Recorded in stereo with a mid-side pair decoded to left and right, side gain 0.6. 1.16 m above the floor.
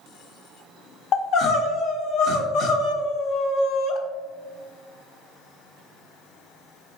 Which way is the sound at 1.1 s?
60° left.